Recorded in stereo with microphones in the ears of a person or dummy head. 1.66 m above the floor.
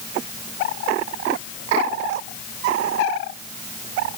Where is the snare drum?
No snare drum in this recording.